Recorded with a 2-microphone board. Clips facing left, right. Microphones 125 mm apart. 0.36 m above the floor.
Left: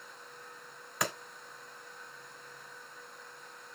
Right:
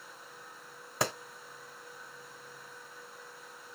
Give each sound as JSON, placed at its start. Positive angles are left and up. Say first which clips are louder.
{"t": 1.0, "sound": "a clap", "louder": "right 3 dB", "side_deg": -30, "distance_m": 1.9}